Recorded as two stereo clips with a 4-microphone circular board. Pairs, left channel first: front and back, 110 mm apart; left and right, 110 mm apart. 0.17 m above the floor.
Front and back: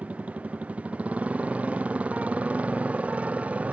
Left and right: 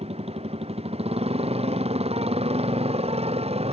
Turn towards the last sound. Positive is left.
turn(degrees=-105)